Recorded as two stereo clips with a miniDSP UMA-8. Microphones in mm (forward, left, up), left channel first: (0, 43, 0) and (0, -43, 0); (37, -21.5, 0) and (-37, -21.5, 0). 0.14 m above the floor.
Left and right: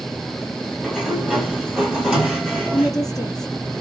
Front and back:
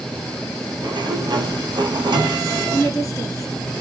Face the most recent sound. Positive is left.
turn(degrees=90)